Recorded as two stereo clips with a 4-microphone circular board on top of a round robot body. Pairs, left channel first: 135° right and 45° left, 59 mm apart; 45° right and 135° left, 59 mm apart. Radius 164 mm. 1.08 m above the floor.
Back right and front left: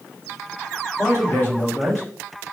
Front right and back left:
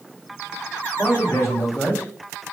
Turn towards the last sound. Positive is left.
turn(degrees=-85)